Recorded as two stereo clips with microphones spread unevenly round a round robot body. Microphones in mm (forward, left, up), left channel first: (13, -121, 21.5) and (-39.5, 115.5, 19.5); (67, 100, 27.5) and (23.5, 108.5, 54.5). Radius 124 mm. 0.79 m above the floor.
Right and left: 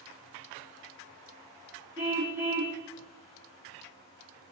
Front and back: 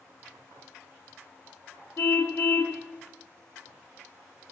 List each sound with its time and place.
2.0 s a car horn: 20° left, 2.5 m